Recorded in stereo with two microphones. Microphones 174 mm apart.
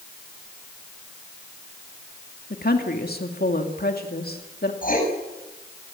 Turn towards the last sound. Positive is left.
turn(degrees=55)  # may be behind; listen again after turning